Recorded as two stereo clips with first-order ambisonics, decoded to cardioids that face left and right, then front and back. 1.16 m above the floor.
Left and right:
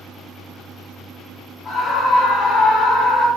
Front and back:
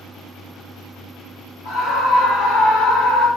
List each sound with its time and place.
1.6 s a scream: 20° left, 3 m